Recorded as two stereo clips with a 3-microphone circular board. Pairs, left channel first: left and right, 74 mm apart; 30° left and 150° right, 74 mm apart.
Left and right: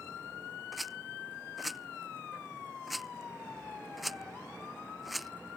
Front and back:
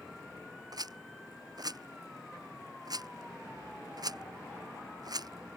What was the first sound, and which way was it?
A rattle, straight behind.